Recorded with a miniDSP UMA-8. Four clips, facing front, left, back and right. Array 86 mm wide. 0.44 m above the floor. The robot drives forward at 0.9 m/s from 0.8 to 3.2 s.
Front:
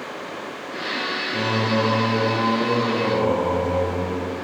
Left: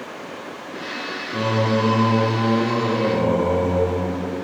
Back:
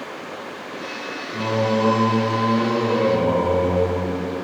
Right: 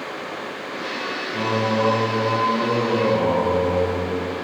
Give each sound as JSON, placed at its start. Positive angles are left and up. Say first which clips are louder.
{"t": 1.3, "sound": "singing", "louder": "left 1 dB, back 2 dB", "azimuth_deg": 80, "distance_m": 1.5}